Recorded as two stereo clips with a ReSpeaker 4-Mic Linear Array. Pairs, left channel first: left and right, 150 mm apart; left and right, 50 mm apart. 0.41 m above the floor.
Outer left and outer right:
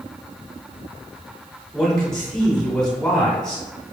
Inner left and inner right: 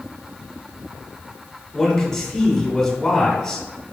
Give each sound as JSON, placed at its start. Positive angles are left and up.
{"t": 1.7, "sound": "a man speaking", "side_deg": 5, "distance_m": 1.8}